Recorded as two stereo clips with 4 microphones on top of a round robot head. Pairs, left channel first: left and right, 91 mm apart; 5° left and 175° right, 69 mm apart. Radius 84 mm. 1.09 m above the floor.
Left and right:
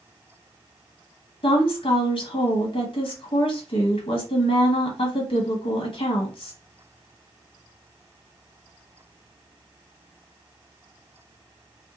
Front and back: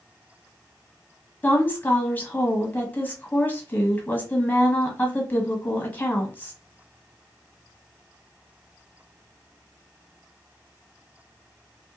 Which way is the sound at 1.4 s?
70° left.